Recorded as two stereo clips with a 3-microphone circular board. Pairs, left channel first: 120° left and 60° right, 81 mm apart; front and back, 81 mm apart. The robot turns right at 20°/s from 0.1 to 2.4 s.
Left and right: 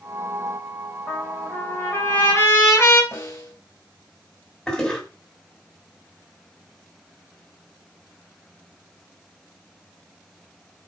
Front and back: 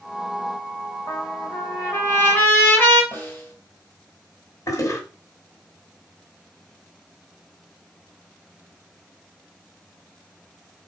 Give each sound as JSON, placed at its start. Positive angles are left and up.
{"t": 1.1, "sound": "a trumpet", "azimuth_deg": 40, "distance_m": 3.0}
{"t": 3.1, "sound": "a snare drum", "azimuth_deg": 65, "distance_m": 3.5}
{"t": 4.7, "sound": "a toilet flushing", "azimuth_deg": 40, "distance_m": 2.5}